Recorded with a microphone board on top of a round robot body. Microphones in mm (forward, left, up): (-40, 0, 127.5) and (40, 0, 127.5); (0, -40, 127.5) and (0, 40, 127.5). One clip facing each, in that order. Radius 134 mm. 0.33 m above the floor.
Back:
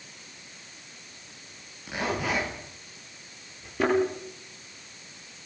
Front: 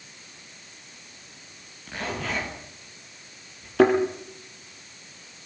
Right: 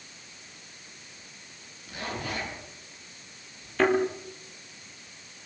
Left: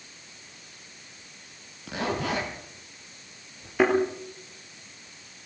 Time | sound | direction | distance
1.9 | a zipper | 100° left | 6.5 m
3.8 | a thud | 10° left | 6.5 m